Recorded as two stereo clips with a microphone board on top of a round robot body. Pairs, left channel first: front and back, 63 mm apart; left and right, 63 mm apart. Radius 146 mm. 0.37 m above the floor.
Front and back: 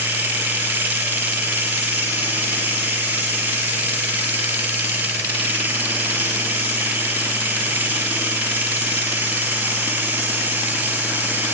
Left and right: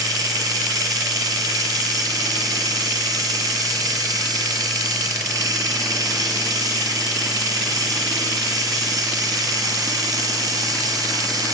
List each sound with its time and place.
0.0 s running water: 120° right, 1.0 m